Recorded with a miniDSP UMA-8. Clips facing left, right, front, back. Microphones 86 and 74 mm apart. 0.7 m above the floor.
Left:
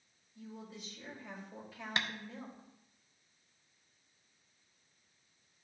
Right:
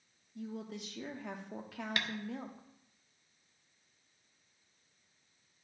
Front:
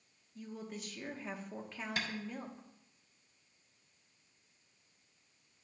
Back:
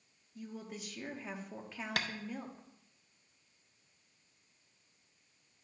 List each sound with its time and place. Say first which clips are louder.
0.3 s a woman speaking: right 6 dB, even; 95° right, 0.9 m
2.0 s tapping: left 2 dB, back 2 dB; 155° left, 0.7 m